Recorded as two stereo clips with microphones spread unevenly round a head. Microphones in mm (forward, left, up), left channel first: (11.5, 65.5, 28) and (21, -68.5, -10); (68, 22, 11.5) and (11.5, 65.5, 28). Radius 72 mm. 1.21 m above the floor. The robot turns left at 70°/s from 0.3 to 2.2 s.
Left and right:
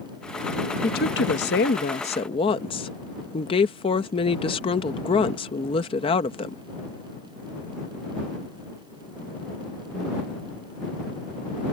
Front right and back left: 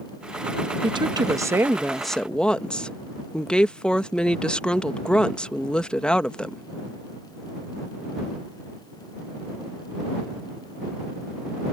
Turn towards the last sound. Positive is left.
turn(degrees=40)